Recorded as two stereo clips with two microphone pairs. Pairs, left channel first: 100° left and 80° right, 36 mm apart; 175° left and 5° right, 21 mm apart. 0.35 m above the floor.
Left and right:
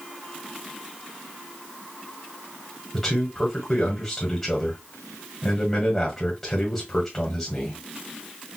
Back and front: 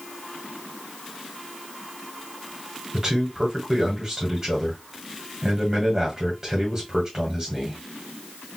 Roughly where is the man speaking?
Ahead left.